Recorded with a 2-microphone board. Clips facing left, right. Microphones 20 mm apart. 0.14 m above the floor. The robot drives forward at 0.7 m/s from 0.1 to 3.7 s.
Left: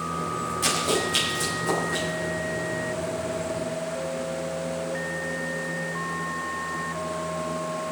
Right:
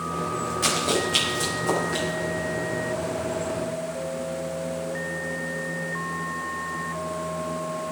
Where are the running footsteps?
15° right (ahead or behind), 7 m; by 2.0 s 10° right (ahead or behind), 8.5 m.